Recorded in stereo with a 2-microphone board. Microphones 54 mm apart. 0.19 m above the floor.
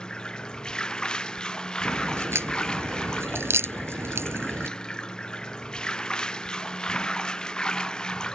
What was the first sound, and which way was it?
Running water, 15° left (ahead or behind).